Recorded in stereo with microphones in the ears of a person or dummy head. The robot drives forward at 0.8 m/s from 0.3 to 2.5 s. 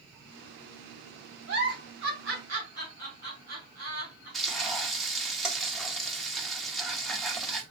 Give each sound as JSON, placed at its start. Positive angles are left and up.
{"t": 1.5, "sound": "a giggle", "side_deg": -65, "distance_m": 4.0}
{"t": 4.3, "sound": "frying", "side_deg": 5, "distance_m": 0.6}